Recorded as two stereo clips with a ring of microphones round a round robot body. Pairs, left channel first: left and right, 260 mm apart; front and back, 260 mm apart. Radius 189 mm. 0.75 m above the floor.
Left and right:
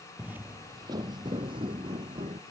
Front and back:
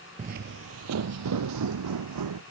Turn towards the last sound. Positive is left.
turn(degrees=-165)